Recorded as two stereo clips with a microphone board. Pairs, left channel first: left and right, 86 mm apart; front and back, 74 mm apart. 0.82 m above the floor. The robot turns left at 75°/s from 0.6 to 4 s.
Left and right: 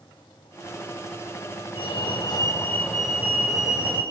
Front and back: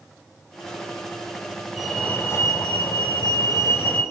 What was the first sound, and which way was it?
A fire alarm, 95° left.